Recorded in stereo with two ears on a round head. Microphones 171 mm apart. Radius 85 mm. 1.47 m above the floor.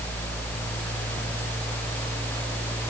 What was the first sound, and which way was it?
Only background noise.